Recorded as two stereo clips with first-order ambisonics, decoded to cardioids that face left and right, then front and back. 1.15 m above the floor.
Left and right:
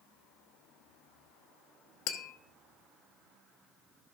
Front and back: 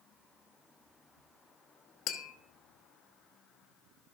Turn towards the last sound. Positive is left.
turn(degrees=50)